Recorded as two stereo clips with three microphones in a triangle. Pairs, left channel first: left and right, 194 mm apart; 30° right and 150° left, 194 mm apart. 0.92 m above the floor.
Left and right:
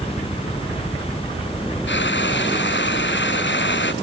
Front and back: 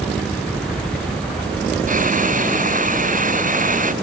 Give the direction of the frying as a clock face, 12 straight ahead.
9 o'clock.